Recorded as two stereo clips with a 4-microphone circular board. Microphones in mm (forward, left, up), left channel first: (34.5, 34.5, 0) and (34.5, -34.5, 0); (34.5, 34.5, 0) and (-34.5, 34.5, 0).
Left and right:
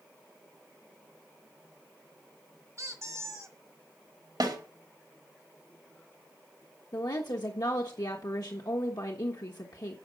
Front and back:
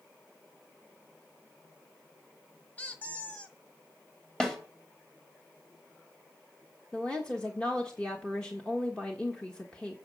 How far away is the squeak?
About 1.4 m.